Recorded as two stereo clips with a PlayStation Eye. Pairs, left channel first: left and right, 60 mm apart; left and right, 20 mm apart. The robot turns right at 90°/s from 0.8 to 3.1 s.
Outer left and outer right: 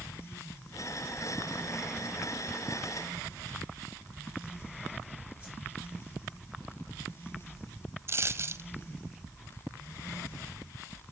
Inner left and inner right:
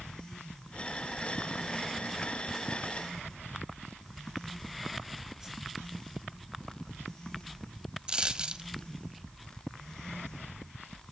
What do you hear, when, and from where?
5.4 s a whoosh: 20° right (ahead or behind), 4 m
8.1 s a dropped coin: 45° right (ahead or behind), 0.7 m